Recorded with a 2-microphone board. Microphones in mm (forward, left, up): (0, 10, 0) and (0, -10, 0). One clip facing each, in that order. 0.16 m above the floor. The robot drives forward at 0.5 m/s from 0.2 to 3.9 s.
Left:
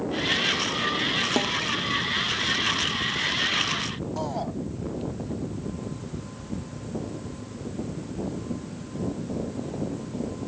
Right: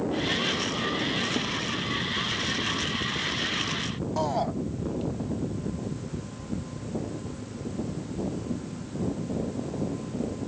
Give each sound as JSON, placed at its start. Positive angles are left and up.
{"t": 1.4, "sound": "a snare drum", "side_deg": 70}
{"t": 4.2, "sound": "a shout", "side_deg": -20}